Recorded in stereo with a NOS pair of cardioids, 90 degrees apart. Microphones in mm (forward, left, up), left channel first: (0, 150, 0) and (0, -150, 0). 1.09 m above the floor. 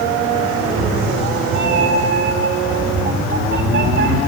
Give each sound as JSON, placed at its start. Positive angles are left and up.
{"t": 0.6, "sound": "a cat meowing", "azimuth_deg": -40, "distance_m": 1.8}